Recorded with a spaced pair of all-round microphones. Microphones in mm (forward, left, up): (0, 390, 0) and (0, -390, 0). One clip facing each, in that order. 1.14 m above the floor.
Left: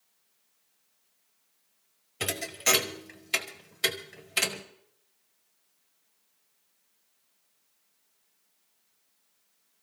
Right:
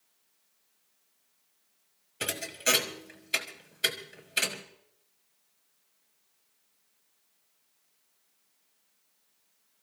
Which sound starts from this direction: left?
A thud, at 2.2 s.